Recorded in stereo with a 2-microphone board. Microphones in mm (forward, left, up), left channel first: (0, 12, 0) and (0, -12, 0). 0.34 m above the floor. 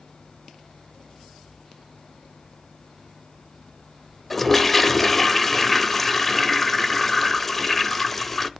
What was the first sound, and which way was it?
A toilet flushing, 10° left (ahead or behind).